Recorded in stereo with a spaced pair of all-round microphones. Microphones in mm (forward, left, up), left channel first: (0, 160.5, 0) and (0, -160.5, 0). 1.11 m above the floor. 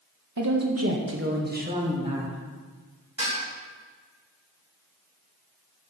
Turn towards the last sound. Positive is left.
turn(degrees=-75)  # may be behind; listen again after turning